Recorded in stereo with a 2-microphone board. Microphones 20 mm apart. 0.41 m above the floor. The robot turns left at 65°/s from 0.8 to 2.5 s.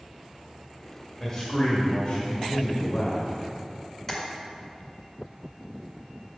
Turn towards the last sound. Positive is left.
turn(degrees=15)  # may be behind; listen again after turning